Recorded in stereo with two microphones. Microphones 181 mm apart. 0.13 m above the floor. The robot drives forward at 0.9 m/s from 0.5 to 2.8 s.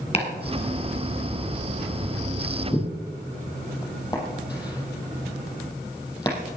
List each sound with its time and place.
0.1 s chopping: 35° left (ahead or behind), 2.5 m; by 6.3 s 20° left (ahead or behind), 4 m